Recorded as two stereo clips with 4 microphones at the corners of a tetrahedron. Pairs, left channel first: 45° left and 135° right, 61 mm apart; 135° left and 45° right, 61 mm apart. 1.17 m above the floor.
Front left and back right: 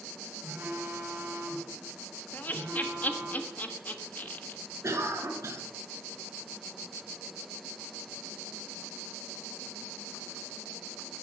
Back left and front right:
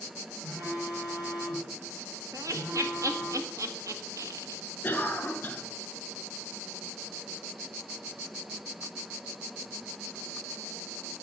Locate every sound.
0.4 s a phone buzzing: 100° right, 4 m
2.3 s laughter: 15° right, 1.4 m
4.8 s a cough: 165° right, 2 m